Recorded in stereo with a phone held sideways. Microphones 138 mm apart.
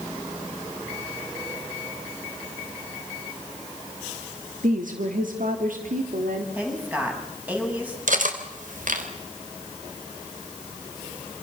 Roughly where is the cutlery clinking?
Right.